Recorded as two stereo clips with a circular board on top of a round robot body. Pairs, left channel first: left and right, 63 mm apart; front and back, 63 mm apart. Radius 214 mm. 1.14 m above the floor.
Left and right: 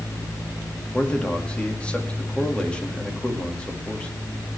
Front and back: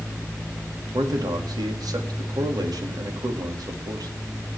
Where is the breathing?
No breathing in this recording.